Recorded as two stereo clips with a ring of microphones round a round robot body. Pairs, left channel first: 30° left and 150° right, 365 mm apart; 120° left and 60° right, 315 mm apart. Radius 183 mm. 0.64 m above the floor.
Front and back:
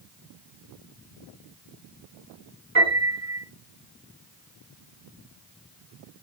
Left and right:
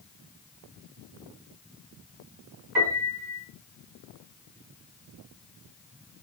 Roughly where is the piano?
Right.